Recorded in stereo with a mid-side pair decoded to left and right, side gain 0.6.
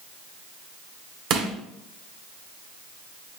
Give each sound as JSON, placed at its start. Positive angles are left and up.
{"t": 1.3, "sound": "crushing", "azimuth_deg": -60, "distance_m": 1.0}